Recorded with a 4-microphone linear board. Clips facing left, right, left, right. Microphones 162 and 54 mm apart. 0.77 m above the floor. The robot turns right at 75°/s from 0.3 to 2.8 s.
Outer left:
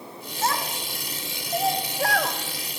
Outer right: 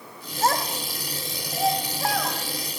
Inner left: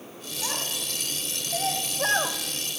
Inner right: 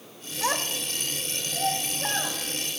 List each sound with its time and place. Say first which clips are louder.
0.4 s a child speaking: outer right 3 dB, inner right 5 dB; 55° right (ahead or behind), 1.8 m; by 2.4 s 90° left, 1.8 m